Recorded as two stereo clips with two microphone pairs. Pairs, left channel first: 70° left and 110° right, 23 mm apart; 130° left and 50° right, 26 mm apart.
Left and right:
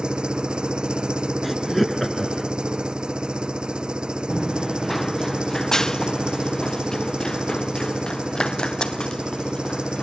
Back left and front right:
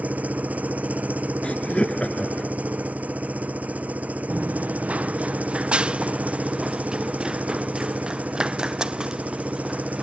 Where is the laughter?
155° left.